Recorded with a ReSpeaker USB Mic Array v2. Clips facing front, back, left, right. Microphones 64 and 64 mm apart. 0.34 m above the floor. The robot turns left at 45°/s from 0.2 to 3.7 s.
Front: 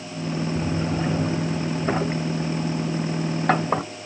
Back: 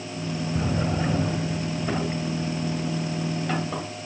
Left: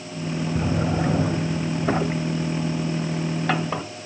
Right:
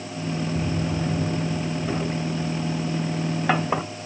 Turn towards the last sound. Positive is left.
turn(degrees=-20)